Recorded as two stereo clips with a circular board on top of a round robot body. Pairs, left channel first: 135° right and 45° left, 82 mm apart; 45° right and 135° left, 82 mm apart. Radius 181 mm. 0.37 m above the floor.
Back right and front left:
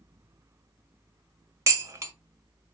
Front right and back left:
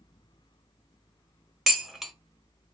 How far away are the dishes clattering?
About 0.8 m.